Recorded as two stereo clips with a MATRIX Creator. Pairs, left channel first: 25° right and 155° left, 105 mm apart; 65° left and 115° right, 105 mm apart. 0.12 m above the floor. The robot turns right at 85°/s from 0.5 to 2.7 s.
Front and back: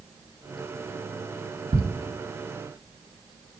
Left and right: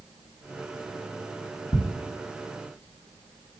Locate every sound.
1.7 s ticking: 120° left, 1.3 m; by 1.8 s 125° left, 1.3 m